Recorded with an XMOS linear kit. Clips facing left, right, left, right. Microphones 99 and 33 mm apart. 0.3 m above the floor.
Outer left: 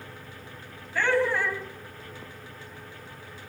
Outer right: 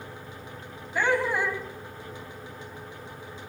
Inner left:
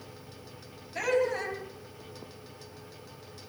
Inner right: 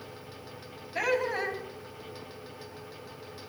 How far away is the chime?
No chime in this recording.